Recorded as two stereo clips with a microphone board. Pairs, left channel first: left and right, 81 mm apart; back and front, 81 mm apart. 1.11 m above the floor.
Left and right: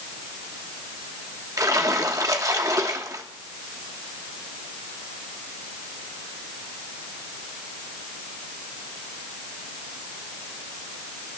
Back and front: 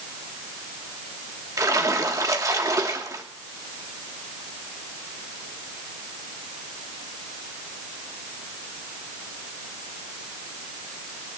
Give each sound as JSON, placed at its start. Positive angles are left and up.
{"t": 1.6, "sound": "a splash", "azimuth_deg": -45, "distance_m": 1.2}